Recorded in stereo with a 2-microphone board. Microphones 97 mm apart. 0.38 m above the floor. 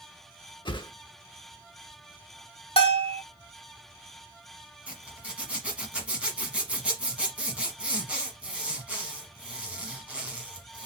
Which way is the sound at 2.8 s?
75° left (ahead or behind).